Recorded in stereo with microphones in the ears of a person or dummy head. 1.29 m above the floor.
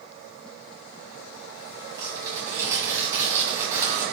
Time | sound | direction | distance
2.0 | tearing paper | 15° right (ahead or behind) | 6 m